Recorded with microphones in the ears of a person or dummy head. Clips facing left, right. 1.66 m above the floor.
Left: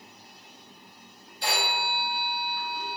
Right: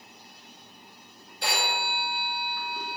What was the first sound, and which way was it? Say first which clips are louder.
A phone ringing: even; 50° right (ahead or behind).